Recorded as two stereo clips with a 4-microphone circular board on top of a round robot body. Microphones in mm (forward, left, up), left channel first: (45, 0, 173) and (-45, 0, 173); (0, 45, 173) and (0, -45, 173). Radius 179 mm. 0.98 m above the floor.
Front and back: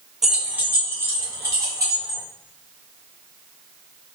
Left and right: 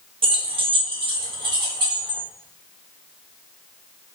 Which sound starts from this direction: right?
Keys jangling, at 0.2 s.